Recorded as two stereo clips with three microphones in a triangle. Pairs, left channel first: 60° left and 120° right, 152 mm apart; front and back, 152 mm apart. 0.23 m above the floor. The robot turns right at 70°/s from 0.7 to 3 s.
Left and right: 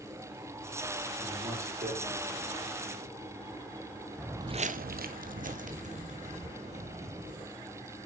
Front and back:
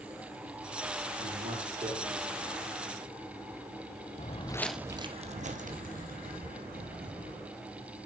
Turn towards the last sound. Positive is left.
turn(degrees=-165)